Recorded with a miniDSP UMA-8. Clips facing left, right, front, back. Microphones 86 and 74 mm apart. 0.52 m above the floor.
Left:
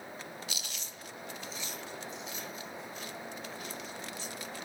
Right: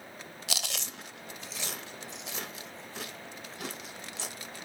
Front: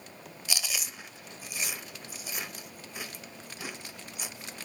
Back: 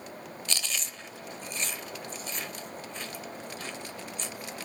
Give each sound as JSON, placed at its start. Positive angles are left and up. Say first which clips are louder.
{"t": 0.5, "sound": "chewing", "louder": "right 6 dB, front 1 dB", "azimuth_deg": -80, "distance_m": 0.8}